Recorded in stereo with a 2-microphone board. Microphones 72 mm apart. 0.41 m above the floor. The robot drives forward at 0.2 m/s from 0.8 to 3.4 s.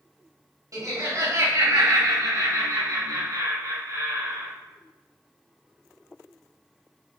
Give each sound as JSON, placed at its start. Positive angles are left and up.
{"t": 0.7, "sound": "laughter", "side_deg": -50, "distance_m": 1.3}